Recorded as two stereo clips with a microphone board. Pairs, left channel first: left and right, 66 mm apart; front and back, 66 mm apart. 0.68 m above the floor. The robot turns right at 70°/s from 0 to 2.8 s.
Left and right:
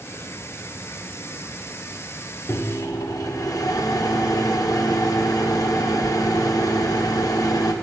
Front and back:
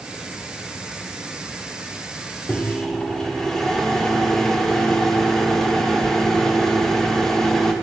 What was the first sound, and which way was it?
A microwave, 60° left.